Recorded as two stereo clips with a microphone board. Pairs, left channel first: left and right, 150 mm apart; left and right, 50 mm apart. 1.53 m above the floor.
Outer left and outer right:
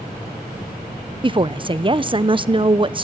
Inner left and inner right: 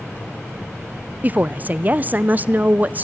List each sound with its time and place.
1.2 s a woman speaking: 35° right (ahead or behind), 0.6 m